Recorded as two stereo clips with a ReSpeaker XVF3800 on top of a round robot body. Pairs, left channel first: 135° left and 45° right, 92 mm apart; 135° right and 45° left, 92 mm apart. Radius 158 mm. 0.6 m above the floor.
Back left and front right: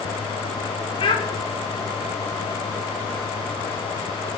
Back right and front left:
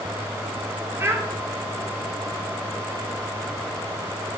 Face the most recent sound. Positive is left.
turn(degrees=110)